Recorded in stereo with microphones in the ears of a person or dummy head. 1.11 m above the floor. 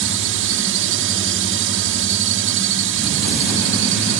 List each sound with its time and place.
0.0 s a drone: 60° right (ahead or behind)